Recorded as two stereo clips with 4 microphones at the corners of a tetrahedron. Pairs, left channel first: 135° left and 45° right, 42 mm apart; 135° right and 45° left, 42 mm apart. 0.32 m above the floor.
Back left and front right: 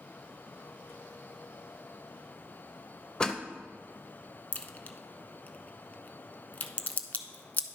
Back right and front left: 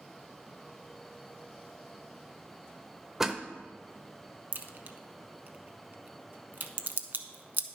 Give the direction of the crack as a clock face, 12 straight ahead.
9 o'clock.